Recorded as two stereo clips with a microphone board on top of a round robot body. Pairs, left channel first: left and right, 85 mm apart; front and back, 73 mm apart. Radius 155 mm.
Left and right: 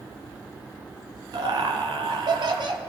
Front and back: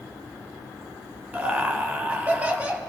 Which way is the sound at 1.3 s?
115° right.